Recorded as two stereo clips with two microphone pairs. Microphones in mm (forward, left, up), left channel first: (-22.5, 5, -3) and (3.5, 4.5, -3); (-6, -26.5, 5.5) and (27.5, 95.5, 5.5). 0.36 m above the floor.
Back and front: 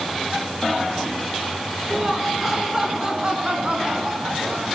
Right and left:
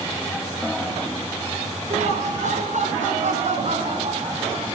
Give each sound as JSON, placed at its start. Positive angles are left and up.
{"t": 1.9, "sound": "laughter", "azimuth_deg": 85, "distance_m": 4.5}